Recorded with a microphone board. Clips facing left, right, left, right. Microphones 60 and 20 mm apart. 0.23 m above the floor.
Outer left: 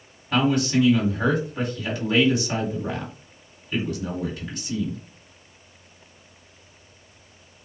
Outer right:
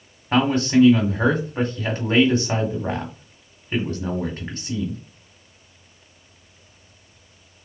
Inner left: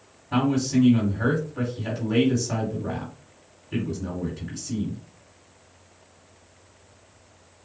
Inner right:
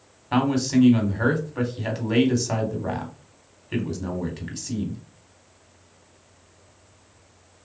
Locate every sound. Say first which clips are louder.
0.3 s a man speaking: outer right 3 dB, inner right 1 dB; 40° right (ahead or behind), 1.7 m